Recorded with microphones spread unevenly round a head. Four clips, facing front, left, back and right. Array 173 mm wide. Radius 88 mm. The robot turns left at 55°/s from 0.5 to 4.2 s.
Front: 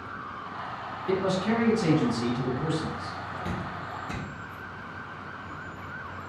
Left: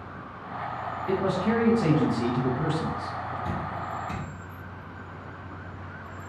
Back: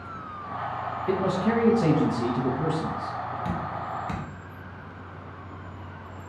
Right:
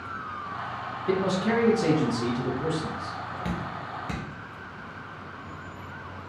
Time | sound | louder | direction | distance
1.1 | a man speaking | right 1 dB, back 1 dB | 150° right | 1.0 m
3.5 | dripping | left 1 dB, back 4 dB | 95° right | 1.0 m